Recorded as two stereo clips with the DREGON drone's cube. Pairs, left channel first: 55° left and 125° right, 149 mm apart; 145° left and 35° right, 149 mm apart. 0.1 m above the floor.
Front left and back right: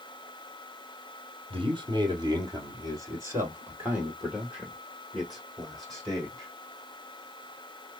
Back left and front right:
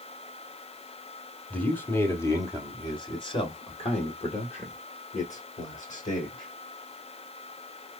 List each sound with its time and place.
1.5 s a man speaking: 140° right, 1.7 m; by 6.5 s 140° left, 3 m